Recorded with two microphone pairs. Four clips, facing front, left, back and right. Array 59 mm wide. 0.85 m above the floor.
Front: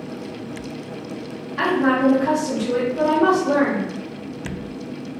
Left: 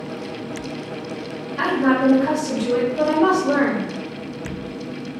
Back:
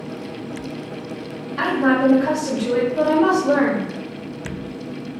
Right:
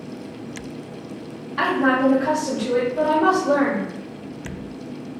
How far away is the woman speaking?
About 0.8 m.